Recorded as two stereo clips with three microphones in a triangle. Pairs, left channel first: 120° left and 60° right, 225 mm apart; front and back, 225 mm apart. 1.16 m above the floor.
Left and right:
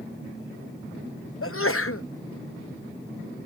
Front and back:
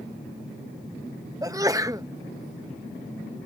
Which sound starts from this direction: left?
A sneeze, at 1.4 s.